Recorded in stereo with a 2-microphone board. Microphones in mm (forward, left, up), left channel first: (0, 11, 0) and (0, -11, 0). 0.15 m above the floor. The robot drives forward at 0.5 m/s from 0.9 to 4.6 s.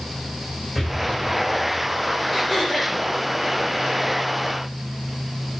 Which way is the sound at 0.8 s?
Centre (ahead or behind).